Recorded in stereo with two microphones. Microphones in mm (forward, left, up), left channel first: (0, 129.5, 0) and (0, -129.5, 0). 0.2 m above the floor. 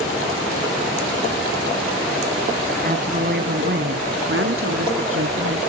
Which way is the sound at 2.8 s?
35° right (ahead or behind).